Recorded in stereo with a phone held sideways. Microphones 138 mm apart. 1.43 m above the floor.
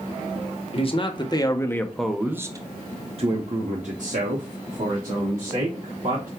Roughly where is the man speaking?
Left.